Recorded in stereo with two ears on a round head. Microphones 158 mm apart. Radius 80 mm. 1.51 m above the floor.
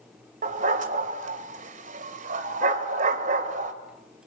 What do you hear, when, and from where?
0.4 s a dog barking: 50° right (ahead or behind), 2 m